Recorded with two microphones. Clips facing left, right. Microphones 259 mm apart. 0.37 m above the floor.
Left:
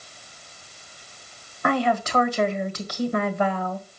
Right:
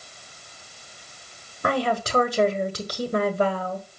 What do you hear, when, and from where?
1.6 s a woman speaking: 40° right (ahead or behind), 1.6 m